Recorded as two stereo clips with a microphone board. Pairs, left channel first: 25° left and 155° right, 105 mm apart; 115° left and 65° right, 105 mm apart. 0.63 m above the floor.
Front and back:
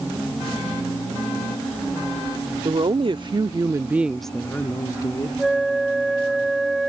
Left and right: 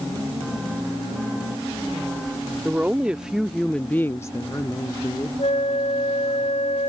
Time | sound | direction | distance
2.6 | a woman speaking | 140° right | ?
5.4 | a flute | 115° left | ?